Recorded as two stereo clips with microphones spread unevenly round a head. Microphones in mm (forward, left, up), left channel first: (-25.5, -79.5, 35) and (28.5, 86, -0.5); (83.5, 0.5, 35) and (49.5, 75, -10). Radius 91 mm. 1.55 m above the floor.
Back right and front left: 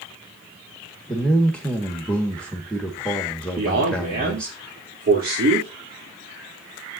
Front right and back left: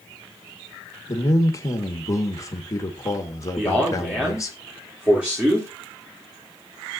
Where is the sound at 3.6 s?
30° left, 3 m.